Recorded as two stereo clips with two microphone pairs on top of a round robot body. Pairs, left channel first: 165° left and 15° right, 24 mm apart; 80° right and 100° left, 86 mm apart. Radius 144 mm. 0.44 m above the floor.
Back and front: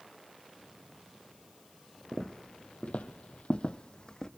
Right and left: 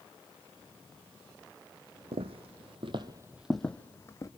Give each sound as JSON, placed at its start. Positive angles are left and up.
{"t": 2.1, "sound": "footsteps", "azimuth_deg": 100, "distance_m": 1.1}